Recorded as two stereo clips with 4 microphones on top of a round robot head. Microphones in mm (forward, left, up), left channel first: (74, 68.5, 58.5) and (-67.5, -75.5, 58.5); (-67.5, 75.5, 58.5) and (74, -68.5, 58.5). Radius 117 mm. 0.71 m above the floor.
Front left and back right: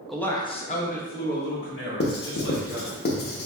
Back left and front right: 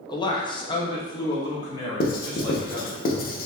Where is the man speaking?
135° left, 0.6 m; by 3.0 s 60° left, 2 m.